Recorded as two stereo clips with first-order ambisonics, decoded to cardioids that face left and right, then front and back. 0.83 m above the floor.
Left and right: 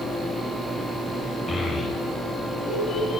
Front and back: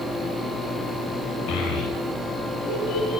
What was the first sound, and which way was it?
A child speaking, 15° left.